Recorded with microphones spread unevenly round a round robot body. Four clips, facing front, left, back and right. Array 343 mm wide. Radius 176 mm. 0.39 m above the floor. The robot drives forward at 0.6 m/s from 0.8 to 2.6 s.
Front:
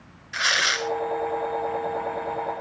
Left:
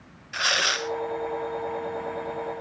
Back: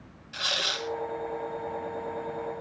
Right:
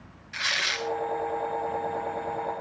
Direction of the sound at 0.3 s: 50° left.